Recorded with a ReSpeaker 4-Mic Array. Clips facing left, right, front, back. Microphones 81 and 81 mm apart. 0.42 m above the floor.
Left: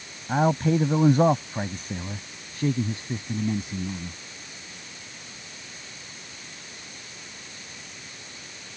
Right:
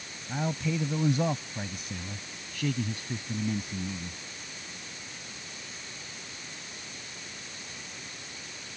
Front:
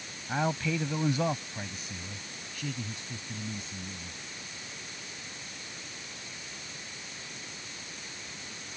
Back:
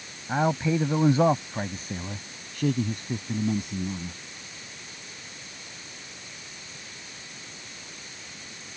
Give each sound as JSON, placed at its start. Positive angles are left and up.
{"t": 0.3, "sound": "a man speaking", "azimuth_deg": 110}